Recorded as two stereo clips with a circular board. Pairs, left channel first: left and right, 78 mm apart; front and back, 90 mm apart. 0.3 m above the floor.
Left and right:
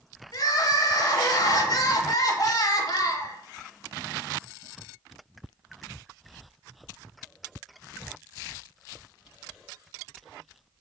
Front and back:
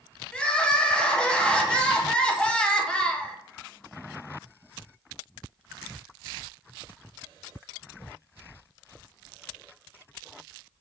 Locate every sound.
0.3 s crying: 75° left, 0.6 m